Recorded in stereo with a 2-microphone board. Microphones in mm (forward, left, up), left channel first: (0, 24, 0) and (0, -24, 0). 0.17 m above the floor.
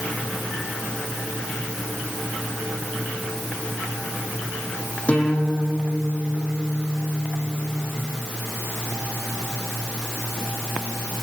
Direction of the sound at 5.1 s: 25° left (ahead or behind).